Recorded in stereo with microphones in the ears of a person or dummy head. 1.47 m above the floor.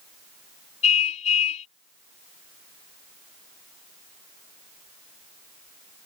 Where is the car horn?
35° left (ahead or behind).